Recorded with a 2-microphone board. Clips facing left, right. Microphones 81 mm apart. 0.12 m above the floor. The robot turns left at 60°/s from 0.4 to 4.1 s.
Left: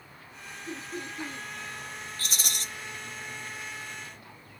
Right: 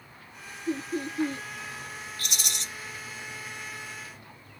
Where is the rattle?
35° left (ahead or behind), 2 m; by 2.6 s 40° left (ahead or behind), 2 m.